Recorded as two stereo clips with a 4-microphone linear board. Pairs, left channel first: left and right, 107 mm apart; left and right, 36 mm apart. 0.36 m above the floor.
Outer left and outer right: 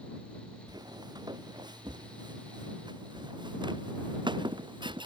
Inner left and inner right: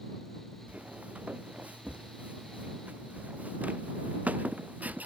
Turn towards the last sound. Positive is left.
turn(degrees=-45)  # may be behind; listen again after turning